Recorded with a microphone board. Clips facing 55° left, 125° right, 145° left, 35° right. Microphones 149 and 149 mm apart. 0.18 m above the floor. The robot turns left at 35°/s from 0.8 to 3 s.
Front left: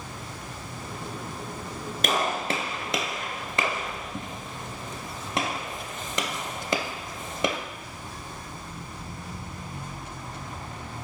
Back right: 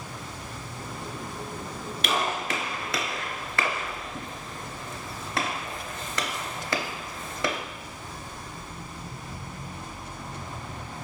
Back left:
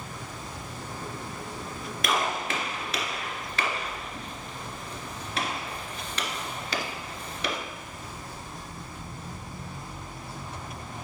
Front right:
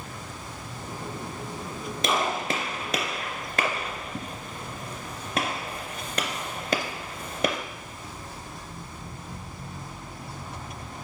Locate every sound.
2.0 s a gunshot: 25° left, 0.6 m; by 7.6 s 10° right, 0.6 m